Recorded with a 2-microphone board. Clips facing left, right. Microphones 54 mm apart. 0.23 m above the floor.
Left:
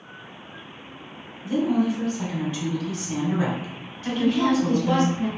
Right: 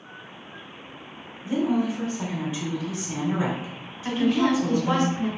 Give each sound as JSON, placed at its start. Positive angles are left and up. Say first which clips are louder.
{"t": 1.4, "sound": "a woman speaking", "louder": "left 2 dB", "side_deg": -10, "distance_m": 1.4}
{"t": 4.0, "sound": "a woman speaking", "louder": "even", "side_deg": -25, "distance_m": 1.7}